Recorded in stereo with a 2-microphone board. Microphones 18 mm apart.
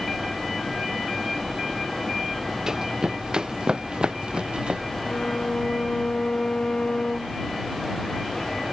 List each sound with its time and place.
2.7 s running footsteps: 30° right (ahead or behind); by 4.8 s 70° right (ahead or behind)
5.0 s a violin: 85° left